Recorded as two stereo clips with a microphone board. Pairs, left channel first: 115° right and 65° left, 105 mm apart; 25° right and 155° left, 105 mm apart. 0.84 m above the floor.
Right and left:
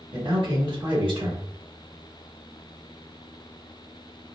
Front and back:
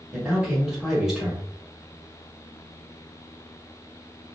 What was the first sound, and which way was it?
A man speaking, 75° left.